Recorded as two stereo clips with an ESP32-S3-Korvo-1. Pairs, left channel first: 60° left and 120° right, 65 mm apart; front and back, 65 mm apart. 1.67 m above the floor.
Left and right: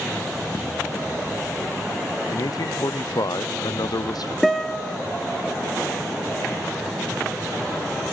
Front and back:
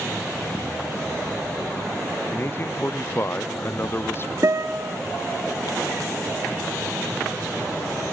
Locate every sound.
2.3 s a man speaking: 55° left, 0.5 m
4.4 s a guitar: 145° left, 2.5 m